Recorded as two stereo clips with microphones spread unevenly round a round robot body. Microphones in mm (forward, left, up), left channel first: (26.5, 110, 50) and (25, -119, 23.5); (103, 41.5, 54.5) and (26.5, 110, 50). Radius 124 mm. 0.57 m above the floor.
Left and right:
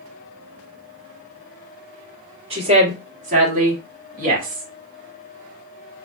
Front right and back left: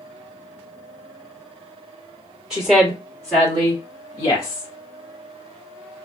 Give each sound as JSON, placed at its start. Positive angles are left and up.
{"t": 2.5, "sound": "a woman speaking", "azimuth_deg": -140, "distance_m": 1.6}